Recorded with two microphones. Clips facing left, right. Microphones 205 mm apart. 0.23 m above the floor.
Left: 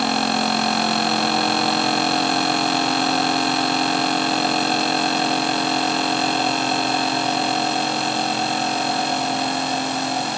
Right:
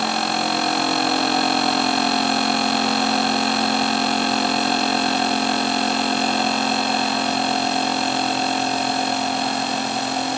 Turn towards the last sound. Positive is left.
No sound to turn to.